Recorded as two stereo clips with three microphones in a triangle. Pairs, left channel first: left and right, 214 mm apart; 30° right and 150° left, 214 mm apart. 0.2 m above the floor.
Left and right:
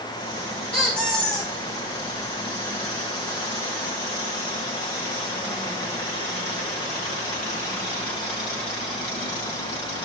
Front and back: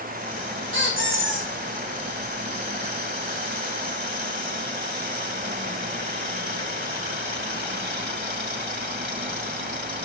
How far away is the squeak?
About 1.9 m.